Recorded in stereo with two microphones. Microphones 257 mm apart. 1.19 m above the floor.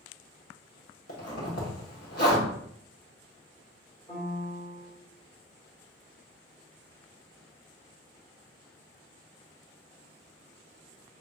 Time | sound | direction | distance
1.1 | a zipper | 70° left (ahead or behind) | 1.4 m
4.1 | a piano | 20° left (ahead or behind) | 2.5 m